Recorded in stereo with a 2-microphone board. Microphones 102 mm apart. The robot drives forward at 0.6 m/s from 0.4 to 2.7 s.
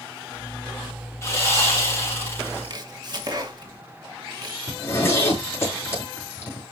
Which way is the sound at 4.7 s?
25° left (ahead or behind).